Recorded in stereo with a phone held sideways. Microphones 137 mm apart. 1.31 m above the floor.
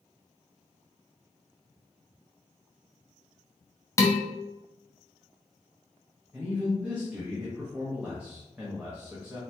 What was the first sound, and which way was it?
Dishes clattering, 20° left (ahead or behind).